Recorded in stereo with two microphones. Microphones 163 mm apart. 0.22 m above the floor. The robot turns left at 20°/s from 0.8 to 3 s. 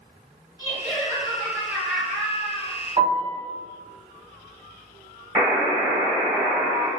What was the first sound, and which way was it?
Laughter, 45° left.